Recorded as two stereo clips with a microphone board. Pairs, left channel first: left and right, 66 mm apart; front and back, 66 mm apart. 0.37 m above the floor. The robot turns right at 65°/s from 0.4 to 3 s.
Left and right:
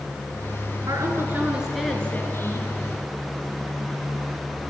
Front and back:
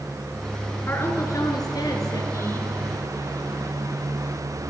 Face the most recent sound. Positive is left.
turn(degrees=80)